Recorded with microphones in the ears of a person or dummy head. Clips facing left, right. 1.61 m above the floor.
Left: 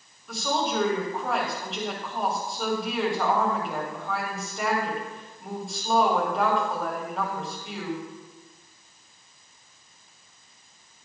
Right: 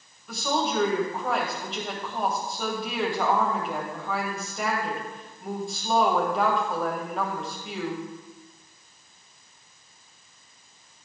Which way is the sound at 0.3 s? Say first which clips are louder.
Even; 5° left (ahead or behind).